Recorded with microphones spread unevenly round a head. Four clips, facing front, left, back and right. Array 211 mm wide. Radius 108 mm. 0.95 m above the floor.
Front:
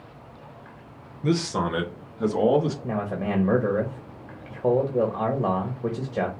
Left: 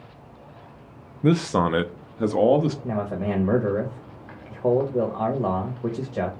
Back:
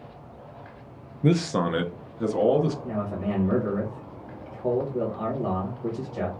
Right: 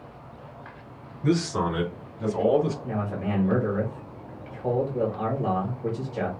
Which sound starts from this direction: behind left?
A man speaking, at 1.2 s.